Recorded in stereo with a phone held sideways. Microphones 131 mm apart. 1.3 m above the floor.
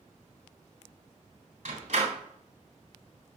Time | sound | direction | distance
1.6 | a door slam | 55° right (ahead or behind) | 3.5 m